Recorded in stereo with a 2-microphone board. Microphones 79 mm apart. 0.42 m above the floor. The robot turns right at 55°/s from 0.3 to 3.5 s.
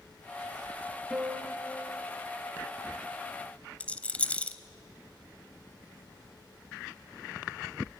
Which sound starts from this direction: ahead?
A piano, at 1.1 s.